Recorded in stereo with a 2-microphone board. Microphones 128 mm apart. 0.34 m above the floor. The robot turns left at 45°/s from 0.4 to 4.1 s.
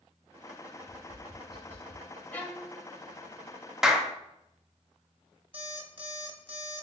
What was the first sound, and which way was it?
Tapping, 25° left (ahead or behind).